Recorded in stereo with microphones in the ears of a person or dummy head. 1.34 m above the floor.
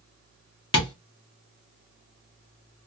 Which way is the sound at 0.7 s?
30° left (ahead or behind).